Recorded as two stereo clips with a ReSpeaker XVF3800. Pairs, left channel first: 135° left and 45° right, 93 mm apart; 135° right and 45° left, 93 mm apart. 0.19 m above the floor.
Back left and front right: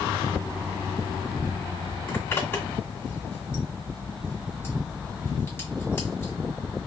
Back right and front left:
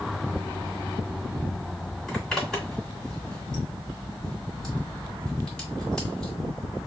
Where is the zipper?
150° left, 1.8 m.